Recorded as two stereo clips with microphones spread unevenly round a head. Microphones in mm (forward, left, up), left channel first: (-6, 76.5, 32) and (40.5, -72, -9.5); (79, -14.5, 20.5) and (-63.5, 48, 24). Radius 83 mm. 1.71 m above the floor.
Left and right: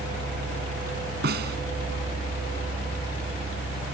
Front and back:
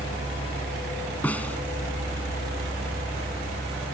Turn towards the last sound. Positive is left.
turn(degrees=-105)